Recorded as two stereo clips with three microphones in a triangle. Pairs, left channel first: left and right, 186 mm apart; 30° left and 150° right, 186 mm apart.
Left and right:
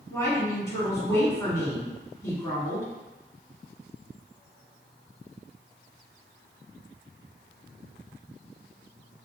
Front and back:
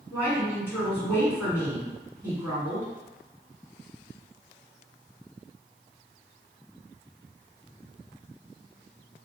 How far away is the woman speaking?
About 1.5 m.